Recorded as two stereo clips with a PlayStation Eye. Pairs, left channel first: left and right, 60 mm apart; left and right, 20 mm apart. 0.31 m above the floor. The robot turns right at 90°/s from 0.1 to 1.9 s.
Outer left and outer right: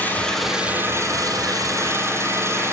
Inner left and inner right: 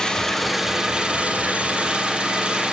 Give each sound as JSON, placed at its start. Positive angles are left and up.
{"t": 0.0, "sound": "an engine running", "azimuth_deg": 150, "distance_m": 5.0}